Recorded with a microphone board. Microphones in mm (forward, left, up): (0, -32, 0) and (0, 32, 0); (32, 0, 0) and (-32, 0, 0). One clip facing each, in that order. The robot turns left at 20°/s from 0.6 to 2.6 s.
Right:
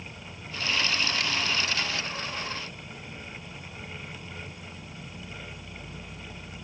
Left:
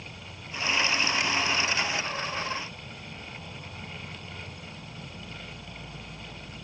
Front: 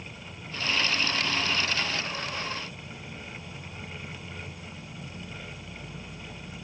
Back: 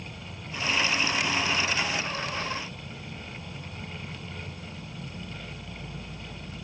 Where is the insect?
160° left, 1.1 m; by 6.7 s 120° left, 1.1 m.